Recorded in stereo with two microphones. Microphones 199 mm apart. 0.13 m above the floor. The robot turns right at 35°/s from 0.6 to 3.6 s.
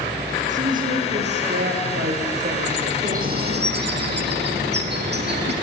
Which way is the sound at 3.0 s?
40° right (ahead or behind).